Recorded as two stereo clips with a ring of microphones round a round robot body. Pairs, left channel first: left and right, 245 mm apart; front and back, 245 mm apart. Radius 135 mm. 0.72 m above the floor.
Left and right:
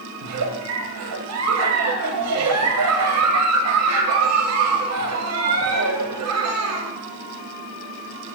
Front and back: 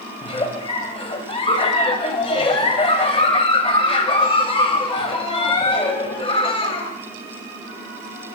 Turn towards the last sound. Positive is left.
turn(degrees=-70)